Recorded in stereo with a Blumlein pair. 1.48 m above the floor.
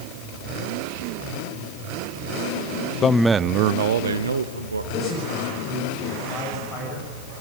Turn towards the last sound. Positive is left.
turn(degrees=25)